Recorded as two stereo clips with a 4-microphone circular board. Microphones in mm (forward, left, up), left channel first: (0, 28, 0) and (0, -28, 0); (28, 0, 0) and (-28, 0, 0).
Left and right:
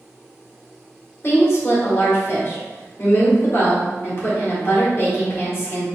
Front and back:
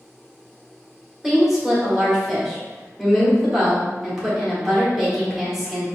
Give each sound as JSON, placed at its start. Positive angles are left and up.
{"t": 1.2, "sound": "a woman speaking", "azimuth_deg": 100, "distance_m": 1.7}